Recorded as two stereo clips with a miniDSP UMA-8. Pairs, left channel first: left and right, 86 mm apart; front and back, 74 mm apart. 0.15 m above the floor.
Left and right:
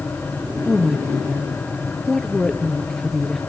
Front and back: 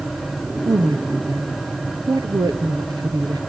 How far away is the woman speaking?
About 2.5 m.